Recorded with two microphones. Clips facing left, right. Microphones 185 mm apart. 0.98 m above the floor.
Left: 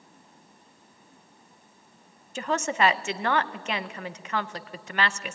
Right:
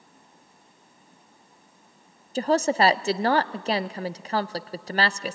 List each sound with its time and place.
2.4 s a woman speaking: 35° right (ahead or behind), 0.5 m